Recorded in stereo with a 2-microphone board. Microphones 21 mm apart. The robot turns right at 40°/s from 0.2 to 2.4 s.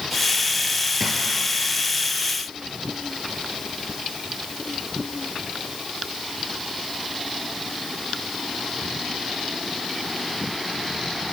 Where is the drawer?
15° left (ahead or behind), 1.8 m; by 1.2 s 5° left (ahead or behind), 1.8 m.